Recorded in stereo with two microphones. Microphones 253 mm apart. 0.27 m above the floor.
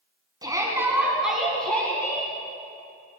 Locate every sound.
0.4 s a shout: 15° right (ahead or behind), 2.5 m; by 2.3 s 15° left (ahead or behind), 2.5 m